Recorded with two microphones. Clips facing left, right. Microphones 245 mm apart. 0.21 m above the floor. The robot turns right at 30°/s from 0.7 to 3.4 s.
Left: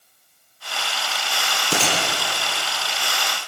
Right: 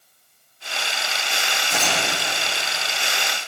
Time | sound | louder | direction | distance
1.7 | a gunshot | left 3 dB | 80° left | 6.5 m